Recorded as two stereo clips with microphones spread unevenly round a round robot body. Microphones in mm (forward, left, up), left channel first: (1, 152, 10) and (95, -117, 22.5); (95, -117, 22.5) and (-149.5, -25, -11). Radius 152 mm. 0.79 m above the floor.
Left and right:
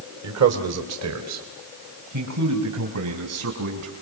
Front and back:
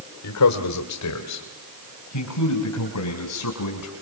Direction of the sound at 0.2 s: 40° right.